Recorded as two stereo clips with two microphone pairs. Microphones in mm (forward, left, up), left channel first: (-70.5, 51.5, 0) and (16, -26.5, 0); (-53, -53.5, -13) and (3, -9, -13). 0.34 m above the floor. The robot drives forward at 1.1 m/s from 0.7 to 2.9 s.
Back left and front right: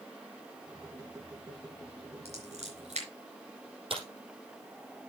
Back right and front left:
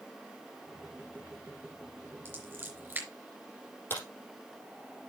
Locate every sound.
2.2 s scissors: 25° right, 4.5 m; by 3.1 s 30° right, 4 m
3.9 s a crack: 80° right, 4.5 m